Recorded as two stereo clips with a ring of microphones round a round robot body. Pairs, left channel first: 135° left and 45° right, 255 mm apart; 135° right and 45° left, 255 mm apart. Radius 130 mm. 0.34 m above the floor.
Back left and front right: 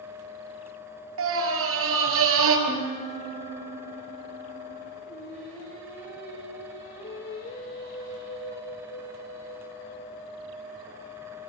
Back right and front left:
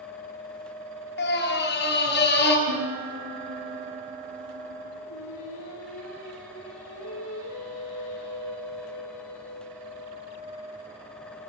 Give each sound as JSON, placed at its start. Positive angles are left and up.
{"t": 1.2, "sound": "a scream", "azimuth_deg": -85, "distance_m": 6.0}
{"t": 2.7, "sound": "a piano", "azimuth_deg": 65, "distance_m": 6.5}
{"t": 5.0, "sound": "singing", "azimuth_deg": -170, "distance_m": 8.0}